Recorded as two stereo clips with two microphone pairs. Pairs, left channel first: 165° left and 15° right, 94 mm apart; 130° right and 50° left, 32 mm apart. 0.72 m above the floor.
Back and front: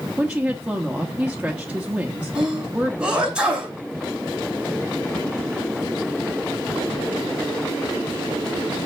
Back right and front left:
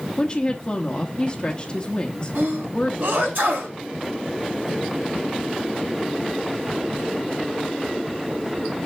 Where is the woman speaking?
90° right, 1.0 m.